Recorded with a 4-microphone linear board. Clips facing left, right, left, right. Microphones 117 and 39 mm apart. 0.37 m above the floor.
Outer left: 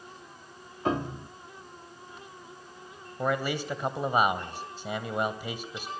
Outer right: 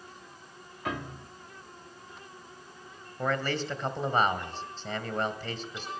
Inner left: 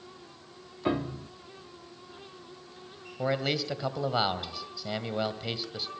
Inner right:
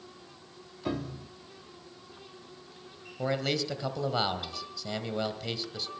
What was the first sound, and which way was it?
A piano, 30° left (ahead or behind).